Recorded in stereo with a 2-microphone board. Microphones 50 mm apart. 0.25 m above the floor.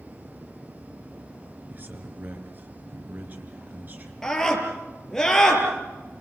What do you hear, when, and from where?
1.7 s a man speaking: 35° right (ahead or behind), 3 m
4.2 s a scream: 10° left (ahead or behind), 5.5 m